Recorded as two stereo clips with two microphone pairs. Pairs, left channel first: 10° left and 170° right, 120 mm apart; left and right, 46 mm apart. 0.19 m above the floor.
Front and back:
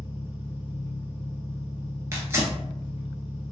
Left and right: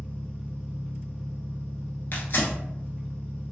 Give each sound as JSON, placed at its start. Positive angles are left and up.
{"t": 0.0, "sound": "an engine running", "azimuth_deg": 25, "distance_m": 1.1}
{"t": 2.1, "sound": "tearing paper", "azimuth_deg": 125, "distance_m": 0.9}